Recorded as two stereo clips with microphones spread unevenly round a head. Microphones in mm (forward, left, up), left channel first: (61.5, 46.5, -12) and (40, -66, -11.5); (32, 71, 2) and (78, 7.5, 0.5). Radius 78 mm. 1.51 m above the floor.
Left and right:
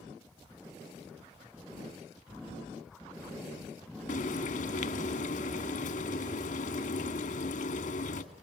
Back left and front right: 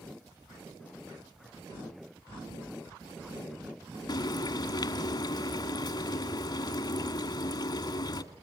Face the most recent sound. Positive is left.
turn(degrees=95)